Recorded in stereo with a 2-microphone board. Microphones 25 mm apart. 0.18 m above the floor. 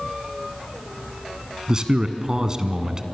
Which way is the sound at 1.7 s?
30° right (ahead or behind).